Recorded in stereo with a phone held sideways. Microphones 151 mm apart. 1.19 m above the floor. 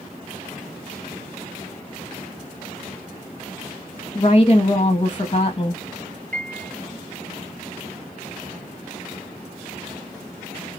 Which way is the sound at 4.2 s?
35° left (ahead or behind).